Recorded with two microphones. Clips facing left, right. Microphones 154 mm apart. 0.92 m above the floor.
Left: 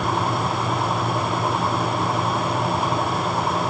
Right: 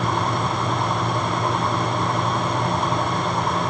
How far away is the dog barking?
I don't hear a dog barking.